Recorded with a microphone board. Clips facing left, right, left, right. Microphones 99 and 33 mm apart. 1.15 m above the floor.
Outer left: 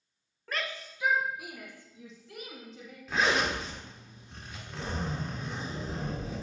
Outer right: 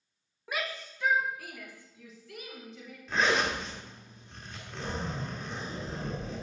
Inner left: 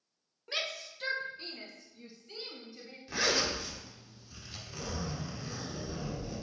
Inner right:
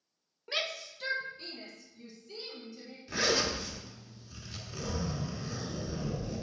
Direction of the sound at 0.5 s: 10° right (ahead or behind).